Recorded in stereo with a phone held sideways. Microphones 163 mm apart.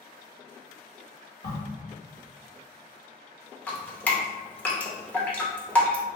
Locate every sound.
1.4 s a crack: 75° left (ahead or behind), 1.6 m
3.7 s dripping: 10° left (ahead or behind), 0.7 m